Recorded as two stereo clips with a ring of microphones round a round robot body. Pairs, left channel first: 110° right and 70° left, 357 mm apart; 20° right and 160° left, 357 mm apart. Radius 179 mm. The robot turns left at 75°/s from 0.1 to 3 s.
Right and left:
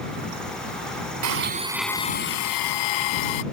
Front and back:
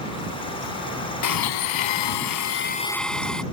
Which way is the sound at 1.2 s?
20° left.